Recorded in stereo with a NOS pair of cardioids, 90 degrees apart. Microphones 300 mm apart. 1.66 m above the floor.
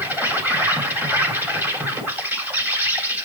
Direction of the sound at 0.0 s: 5° right.